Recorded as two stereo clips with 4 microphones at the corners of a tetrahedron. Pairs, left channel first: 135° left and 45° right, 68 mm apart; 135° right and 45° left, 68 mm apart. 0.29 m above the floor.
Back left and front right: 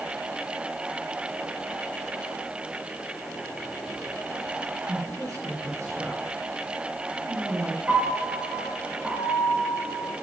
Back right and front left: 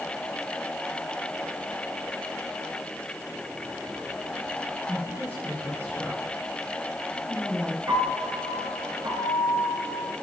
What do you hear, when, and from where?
4.9 s a woman speaking: 75° right, 4 m; by 7.8 s 55° right, 4.5 m
7.9 s a piano: 20° left, 2.5 m